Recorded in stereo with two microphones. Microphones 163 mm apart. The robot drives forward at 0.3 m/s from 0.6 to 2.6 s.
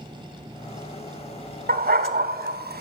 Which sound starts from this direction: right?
A dog barking, at 1.7 s.